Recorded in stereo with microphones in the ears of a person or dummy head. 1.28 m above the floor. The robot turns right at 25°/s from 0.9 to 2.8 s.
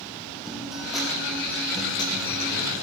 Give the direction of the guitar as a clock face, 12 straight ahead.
12 o'clock.